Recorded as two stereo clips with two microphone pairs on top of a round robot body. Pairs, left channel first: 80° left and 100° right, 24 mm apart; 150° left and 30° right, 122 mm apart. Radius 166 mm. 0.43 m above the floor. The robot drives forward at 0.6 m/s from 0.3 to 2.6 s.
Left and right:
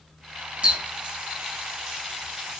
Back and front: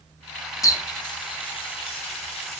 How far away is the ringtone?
No ringtone in this recording.